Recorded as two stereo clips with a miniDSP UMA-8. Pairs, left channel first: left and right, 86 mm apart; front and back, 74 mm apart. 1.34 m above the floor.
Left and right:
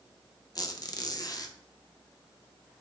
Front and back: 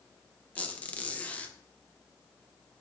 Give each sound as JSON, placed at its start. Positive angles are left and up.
{"t": 0.6, "sound": "a squeak", "azimuth_deg": 65, "distance_m": 0.6}